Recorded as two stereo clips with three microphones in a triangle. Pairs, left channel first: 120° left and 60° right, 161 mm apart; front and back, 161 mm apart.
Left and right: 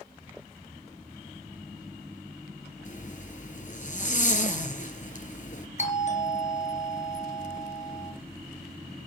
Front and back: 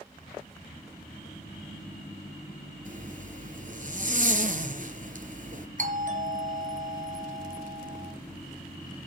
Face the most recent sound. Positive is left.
turn(degrees=155)